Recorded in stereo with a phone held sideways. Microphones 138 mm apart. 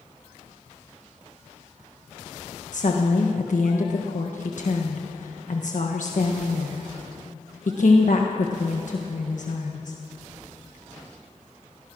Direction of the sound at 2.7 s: 65° left (ahead or behind).